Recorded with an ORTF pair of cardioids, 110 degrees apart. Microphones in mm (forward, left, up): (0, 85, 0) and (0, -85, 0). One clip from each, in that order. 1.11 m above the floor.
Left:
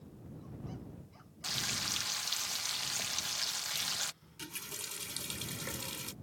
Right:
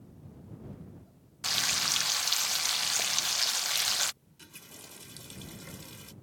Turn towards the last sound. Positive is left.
turn(degrees=45)